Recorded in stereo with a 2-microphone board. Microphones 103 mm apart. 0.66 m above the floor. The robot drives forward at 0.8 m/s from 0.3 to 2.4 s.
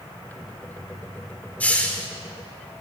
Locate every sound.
1.6 s a hiss: 15° left (ahead or behind), 2 m; by 2.1 s 10° left (ahead or behind), 2.5 m